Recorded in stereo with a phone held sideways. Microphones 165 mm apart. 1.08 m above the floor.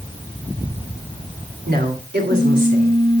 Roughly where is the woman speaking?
Right.